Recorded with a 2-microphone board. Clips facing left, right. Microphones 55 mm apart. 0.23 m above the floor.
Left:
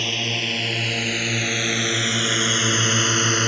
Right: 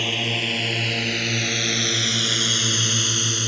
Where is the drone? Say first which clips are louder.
Right 1 dB; 5° right (ahead or behind); by 3.5 s 50° left (ahead or behind).